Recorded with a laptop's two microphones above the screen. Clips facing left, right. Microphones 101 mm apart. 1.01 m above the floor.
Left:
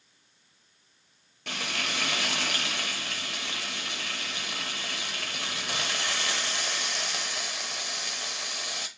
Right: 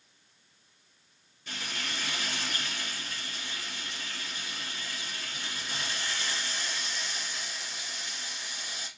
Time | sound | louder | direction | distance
1.5 | frying | left 5 dB | 80° left | 0.6 m